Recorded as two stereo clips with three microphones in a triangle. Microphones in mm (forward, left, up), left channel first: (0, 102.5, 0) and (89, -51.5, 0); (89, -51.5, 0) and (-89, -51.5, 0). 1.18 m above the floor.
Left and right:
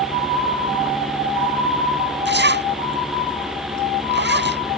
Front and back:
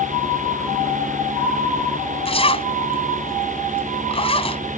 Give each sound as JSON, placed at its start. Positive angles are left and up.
{"t": 2.2, "sound": "a zipper", "azimuth_deg": -60}